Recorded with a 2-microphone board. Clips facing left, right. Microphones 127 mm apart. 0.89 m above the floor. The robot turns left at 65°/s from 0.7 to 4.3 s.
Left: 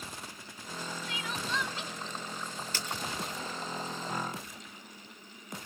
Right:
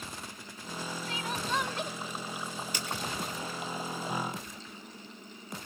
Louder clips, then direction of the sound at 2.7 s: Right 1 dB; 15° right (ahead or behind).